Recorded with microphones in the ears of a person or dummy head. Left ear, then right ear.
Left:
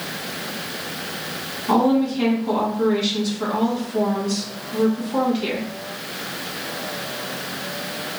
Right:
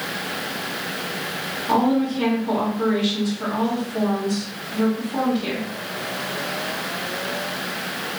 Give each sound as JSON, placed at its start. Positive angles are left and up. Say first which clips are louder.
{"t": 1.7, "sound": "a woman speaking", "louder": "left 2 dB", "side_deg": 80, "distance_m": 1.9}